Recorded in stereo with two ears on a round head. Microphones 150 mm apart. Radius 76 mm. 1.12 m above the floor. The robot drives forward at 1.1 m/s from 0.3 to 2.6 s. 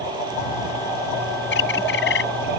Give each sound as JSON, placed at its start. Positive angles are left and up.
{"t": 1.5, "sound": "a bird", "side_deg": 80}